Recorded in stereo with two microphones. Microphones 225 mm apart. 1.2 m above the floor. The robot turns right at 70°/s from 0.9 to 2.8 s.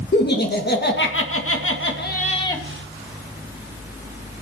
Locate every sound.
0.1 s laughter: 50° left, 2.0 m; by 2.6 s 170° left, 2.0 m